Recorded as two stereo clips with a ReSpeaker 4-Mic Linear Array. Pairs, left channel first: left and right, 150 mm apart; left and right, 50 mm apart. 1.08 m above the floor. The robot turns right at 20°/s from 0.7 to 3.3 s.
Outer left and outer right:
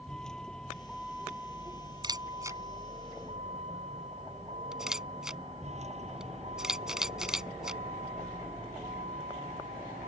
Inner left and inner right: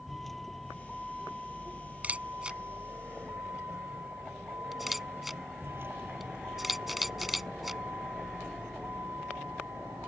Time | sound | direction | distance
0.0 | a vehicle | 175° left | ?
2.0 | a camera shutter | 30° right (ahead or behind) | ?